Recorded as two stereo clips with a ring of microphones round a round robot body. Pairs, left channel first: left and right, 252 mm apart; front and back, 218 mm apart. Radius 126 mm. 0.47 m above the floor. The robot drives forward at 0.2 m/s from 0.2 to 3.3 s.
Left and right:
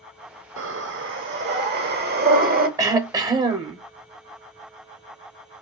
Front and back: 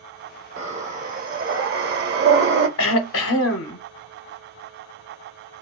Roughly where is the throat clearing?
Ahead.